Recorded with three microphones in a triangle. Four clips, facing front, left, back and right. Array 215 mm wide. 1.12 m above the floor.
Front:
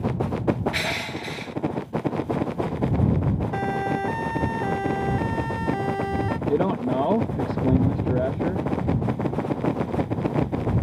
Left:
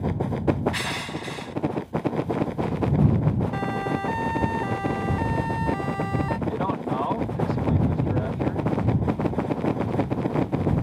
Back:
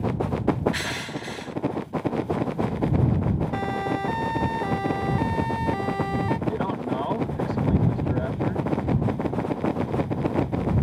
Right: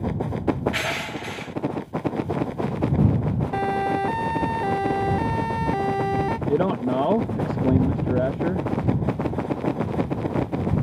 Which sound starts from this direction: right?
A siren, at 3.5 s.